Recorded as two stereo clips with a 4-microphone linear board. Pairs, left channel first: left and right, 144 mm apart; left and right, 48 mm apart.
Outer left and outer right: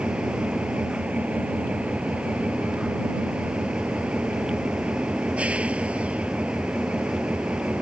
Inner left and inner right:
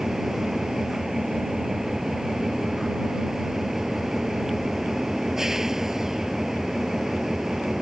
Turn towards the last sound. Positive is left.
turn(degrees=-10)  # may be behind; listen again after turning